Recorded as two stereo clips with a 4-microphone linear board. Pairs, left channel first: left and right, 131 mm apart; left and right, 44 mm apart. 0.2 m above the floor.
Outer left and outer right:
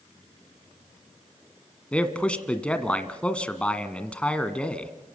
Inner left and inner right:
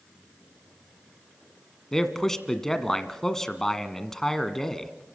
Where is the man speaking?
10° left (ahead or behind), 1.5 m.